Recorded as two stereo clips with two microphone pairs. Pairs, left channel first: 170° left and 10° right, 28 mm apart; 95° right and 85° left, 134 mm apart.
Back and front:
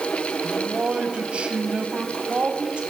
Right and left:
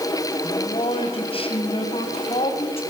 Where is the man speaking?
50° right, 4 m; by 2.8 s 55° right, 5.5 m.